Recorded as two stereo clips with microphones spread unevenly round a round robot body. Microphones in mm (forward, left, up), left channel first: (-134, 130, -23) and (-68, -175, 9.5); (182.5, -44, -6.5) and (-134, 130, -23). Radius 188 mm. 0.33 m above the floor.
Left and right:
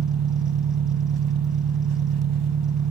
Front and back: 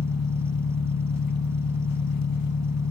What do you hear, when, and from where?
0.0 s an engine running: 80° right, 0.9 m